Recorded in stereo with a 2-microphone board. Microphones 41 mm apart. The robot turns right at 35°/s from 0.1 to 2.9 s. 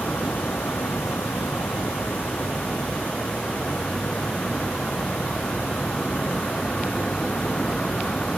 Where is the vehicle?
50° left (ahead or behind); by 8.4 s 20° left (ahead or behind).